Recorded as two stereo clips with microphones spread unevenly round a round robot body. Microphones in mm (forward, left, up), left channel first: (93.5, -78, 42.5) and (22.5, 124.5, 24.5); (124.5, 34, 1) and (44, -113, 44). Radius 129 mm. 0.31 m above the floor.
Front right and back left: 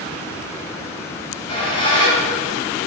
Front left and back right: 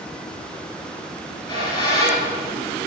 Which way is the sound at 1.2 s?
5° right.